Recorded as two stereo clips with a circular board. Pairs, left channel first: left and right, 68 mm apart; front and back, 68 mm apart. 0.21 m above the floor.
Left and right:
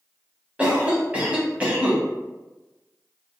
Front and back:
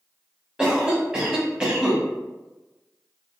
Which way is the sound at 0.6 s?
125° right.